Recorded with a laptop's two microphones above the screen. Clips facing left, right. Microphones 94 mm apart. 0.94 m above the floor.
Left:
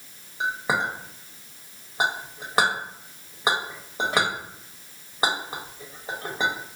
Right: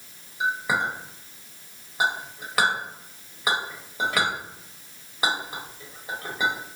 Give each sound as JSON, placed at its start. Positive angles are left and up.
{"t": 0.4, "sound": "a clink", "side_deg": 30, "distance_m": 0.9}